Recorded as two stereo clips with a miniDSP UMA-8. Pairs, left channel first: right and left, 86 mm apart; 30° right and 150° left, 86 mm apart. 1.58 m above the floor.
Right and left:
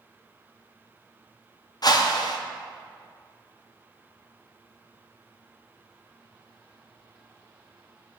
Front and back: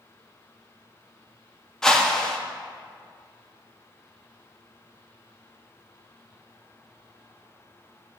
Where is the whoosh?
115° right, 0.6 m.